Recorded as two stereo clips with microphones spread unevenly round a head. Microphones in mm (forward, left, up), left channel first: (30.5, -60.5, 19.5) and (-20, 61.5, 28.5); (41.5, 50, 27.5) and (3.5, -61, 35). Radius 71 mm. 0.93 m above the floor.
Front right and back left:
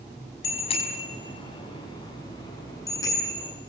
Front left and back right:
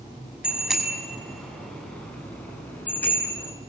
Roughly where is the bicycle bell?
Ahead right.